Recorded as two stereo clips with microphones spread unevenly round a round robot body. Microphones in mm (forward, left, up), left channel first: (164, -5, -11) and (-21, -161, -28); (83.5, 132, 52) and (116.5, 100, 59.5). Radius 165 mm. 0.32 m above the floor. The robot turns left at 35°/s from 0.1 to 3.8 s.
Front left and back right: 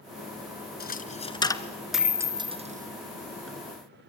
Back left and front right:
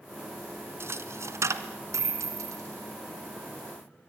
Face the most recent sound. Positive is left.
turn(degrees=-115)